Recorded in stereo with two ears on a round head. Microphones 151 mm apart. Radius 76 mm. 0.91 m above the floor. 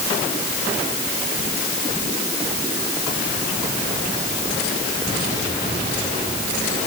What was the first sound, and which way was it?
Only background noise.